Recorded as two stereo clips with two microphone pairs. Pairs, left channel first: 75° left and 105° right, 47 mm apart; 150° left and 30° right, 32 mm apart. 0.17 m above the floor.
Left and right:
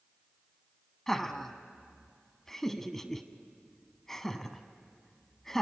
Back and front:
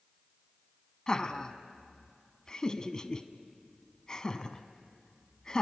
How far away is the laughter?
About 1.1 m.